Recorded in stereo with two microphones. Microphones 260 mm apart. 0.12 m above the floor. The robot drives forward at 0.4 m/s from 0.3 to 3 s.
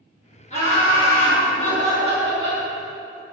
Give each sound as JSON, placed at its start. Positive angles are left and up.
{"t": 0.5, "sound": "laughter", "side_deg": 30, "distance_m": 1.4}